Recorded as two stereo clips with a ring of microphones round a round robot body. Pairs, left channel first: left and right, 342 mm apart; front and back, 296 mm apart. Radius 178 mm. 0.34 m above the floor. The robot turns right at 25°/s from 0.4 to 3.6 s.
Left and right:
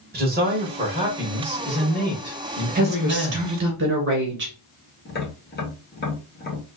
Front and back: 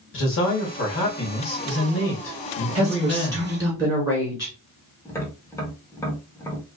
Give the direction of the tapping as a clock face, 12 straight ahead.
10 o'clock.